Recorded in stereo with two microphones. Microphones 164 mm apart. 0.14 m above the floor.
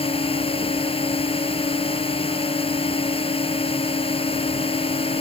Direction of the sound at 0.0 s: 35° left (ahead or behind).